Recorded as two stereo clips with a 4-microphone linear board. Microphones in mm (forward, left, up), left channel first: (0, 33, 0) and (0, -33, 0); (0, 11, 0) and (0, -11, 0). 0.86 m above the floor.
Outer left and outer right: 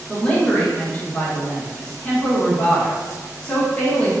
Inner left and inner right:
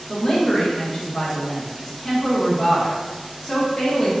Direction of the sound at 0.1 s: 20° left (ahead or behind).